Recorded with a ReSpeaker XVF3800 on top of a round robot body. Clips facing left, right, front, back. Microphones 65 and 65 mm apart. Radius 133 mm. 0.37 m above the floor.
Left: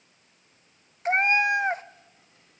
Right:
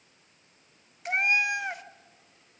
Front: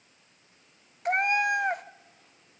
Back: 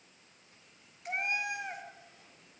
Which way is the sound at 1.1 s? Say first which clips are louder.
Left 4 dB, front 10 dB; 35° left.